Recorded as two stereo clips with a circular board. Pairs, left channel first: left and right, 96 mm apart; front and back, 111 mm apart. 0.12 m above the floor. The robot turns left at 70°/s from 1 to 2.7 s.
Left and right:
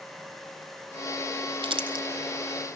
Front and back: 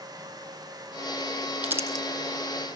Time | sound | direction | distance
1.6 | crumpling | 100° right | 1.9 m